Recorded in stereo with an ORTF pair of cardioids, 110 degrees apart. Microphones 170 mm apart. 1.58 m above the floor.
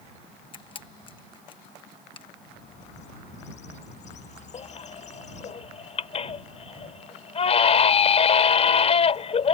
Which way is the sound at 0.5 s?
30° left.